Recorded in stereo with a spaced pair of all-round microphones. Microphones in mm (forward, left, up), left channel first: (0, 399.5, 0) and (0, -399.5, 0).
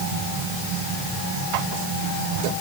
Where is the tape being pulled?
No tape being pulled in this recording.